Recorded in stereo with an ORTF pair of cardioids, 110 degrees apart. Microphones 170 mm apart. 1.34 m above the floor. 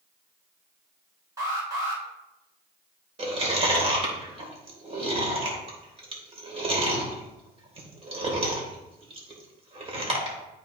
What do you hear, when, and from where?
1.4 s an alarm: 20° right, 4.5 m
3.2 s chewing: 35° right, 3 m